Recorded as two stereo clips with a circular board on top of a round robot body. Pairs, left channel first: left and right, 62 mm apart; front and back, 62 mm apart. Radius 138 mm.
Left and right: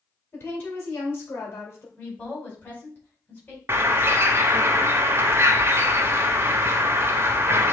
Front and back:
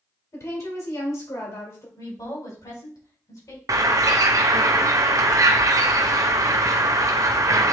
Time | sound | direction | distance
0.3 | a woman speaking | 35° left | 3 m
2.0 | a woman speaking | 25° left | 4 m
3.7 | a bird | 140° right | 0.6 m